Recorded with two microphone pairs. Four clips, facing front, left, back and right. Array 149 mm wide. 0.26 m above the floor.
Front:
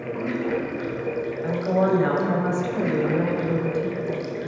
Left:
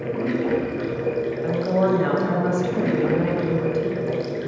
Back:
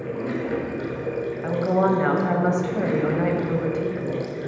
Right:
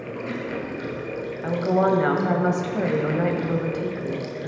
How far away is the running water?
About 1.2 m.